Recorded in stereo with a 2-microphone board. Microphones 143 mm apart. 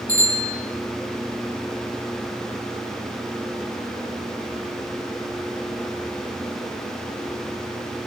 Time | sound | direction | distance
0.1 | a bicycle bell | 70° right (ahead or behind) | 7 m